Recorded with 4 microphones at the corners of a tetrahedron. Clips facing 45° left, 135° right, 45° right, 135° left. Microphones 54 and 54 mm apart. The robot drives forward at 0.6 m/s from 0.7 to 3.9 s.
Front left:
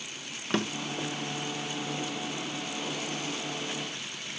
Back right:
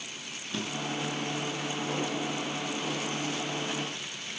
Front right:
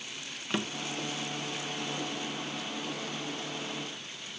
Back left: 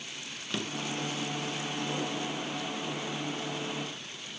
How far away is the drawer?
About 1.4 m.